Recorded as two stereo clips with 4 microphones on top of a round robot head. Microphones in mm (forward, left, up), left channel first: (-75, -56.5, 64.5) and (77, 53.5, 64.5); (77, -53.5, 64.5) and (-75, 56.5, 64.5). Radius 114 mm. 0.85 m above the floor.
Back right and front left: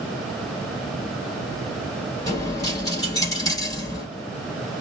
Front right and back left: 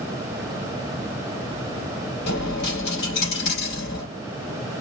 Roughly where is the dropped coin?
Right.